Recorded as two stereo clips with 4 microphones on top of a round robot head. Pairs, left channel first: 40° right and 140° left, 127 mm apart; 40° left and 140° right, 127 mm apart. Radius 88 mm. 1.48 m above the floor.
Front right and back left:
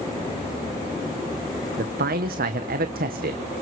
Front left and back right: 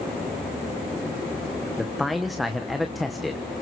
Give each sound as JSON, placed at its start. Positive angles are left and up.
{"t": 1.8, "sound": "a man speaking", "azimuth_deg": 130, "distance_m": 1.1}